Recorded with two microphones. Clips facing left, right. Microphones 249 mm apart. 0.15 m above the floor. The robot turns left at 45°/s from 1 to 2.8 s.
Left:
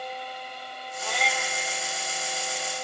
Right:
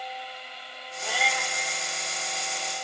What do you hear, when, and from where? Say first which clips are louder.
1.0 s a cat meowing: left 1 dB; 10° right (ahead or behind), 1.3 m; by 1.5 s 10° left (ahead or behind), 1.3 m